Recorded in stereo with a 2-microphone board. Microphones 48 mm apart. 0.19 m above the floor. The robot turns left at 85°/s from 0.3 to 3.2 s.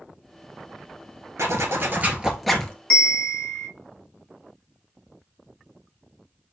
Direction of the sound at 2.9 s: 20° left (ahead or behind).